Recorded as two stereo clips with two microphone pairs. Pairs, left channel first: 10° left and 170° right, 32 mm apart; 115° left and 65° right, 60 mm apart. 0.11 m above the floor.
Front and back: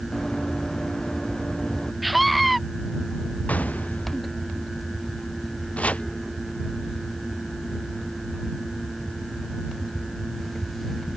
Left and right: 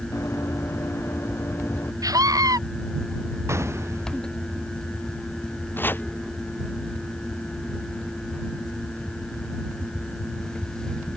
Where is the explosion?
25° right.